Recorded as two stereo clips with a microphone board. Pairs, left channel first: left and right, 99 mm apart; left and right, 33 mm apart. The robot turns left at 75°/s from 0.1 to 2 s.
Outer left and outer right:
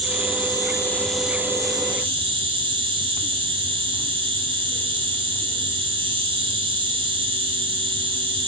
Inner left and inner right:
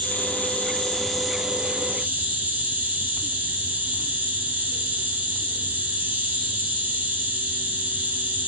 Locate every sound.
0.0 s an insect: 80° left, 1.1 m; by 8.5 s 60° right, 1.1 m